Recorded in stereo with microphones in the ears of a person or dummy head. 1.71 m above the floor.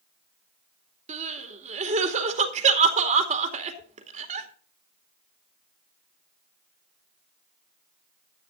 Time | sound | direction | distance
1.1 | crying | 40° right (ahead or behind) | 2.5 m